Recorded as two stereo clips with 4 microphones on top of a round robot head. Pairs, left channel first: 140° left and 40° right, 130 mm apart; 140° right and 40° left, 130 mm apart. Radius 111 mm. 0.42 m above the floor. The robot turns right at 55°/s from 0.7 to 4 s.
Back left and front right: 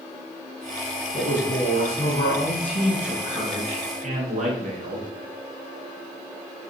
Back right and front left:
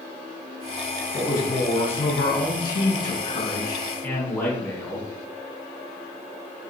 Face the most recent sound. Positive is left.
turn(degrees=-65)